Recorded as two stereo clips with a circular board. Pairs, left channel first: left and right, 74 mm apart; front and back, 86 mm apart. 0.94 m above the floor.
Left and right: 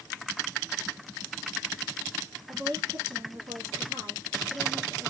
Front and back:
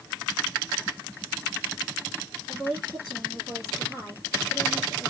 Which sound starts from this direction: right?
A woman speaking, at 2.5 s.